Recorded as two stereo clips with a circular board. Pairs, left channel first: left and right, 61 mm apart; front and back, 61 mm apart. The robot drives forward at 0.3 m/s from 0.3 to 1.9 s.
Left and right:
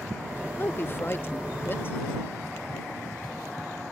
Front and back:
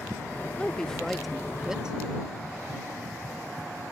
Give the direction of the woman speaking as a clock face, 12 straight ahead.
10 o'clock.